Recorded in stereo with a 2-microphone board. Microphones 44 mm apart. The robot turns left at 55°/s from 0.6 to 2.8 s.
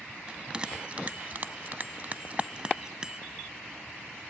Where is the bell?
20° right (ahead or behind), 0.6 m; by 3.2 s 15° right (ahead or behind), 0.6 m.